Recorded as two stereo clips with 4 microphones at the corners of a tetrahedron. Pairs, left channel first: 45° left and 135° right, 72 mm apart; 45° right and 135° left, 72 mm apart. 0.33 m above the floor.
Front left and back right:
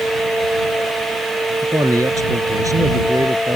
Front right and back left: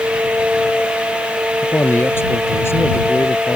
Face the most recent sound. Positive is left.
turn(degrees=-95)